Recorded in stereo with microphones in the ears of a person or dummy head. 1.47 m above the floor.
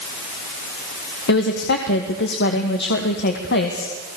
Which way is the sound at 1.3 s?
55° left (ahead or behind).